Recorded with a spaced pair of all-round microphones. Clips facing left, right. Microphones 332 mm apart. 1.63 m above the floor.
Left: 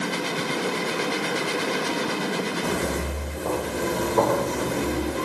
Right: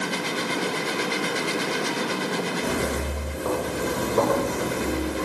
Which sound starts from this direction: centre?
Footsteps, at 2.6 s.